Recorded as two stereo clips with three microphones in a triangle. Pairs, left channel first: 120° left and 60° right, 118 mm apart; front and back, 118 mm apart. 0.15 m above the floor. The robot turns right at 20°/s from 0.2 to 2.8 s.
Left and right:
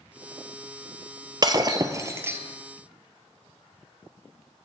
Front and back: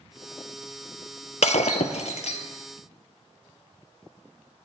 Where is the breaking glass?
5° right, 0.6 m; by 2.4 s 15° left, 0.6 m.